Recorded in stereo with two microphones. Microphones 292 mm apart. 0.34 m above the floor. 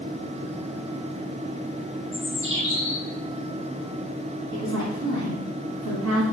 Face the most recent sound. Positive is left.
turn(degrees=-65)  # may be behind; listen again after turning